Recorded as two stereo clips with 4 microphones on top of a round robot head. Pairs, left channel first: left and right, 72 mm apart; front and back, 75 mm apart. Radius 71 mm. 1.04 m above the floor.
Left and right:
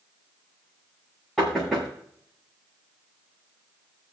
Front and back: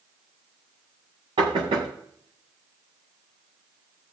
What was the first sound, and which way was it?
Knocking, straight behind.